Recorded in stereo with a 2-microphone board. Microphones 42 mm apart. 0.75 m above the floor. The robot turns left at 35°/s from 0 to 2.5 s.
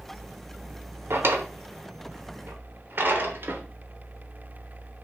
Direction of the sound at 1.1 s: 70° right (ahead or behind).